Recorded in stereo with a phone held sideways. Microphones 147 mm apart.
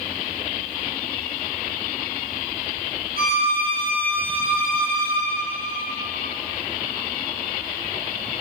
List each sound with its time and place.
3.2 s a violin: 80° right, 6.5 m